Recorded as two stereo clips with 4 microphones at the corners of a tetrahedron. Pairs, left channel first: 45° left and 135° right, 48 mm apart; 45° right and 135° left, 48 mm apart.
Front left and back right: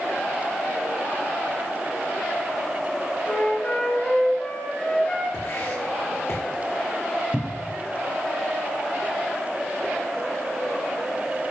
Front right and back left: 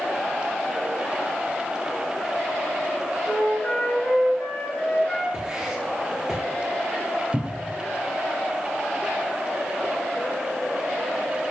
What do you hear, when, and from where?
3.3 s a flute: 5° right, 2.5 m
5.3 s writing: 60° left, 3.5 m
7.3 s a cupboard door: 130° left, 0.8 m